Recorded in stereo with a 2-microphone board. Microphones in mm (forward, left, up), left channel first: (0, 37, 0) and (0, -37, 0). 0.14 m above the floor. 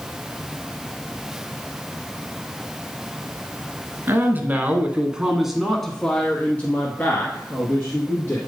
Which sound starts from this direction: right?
A man speaking, at 4.1 s.